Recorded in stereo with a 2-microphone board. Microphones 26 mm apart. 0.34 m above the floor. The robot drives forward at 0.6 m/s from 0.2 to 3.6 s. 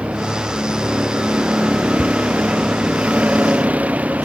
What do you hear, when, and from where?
0.0 s a vehicle: 50° right (ahead or behind); by 4.3 s 65° right (ahead or behind)
2.0 s a cupboard door: 40° right (ahead or behind)